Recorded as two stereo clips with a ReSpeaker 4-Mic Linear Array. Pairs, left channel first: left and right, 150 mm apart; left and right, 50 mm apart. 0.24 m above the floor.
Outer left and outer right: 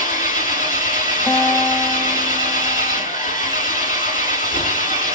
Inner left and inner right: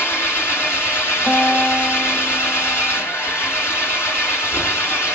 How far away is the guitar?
About 0.7 m.